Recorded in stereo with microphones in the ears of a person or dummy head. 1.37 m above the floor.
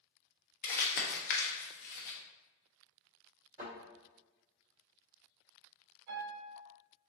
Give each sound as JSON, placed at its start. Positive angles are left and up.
{"t": 0.6, "sound": "crumpling", "side_deg": 40, "distance_m": 0.6}
{"t": 3.6, "sound": "a thud", "side_deg": -25, "distance_m": 0.9}
{"t": 6.1, "sound": "a piano", "side_deg": -70, "distance_m": 0.9}